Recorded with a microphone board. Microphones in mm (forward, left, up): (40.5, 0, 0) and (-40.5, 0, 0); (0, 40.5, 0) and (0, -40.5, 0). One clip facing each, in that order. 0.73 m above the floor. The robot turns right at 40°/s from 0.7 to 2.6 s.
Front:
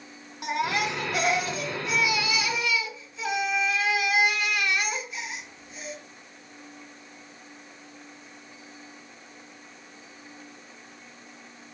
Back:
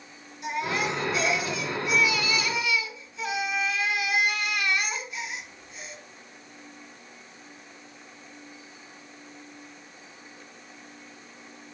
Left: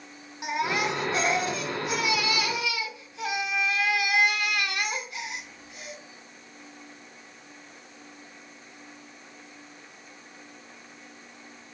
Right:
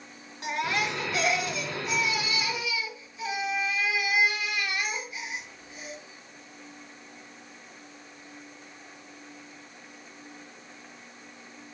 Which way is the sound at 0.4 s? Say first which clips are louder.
Front 1 dB, left 2 dB; 20° left.